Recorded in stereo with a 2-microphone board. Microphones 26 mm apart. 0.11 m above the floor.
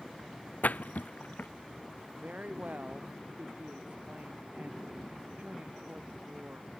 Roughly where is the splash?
Left.